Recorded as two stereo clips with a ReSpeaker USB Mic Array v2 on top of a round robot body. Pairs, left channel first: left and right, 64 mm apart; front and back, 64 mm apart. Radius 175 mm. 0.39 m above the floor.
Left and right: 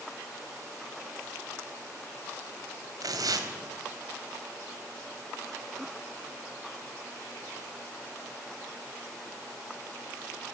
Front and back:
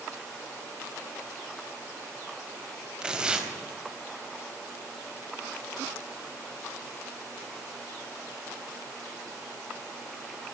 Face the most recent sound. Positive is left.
turn(degrees=-105)